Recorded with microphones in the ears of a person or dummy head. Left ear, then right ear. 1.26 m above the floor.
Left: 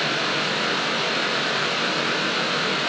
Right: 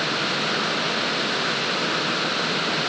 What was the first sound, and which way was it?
Only background noise.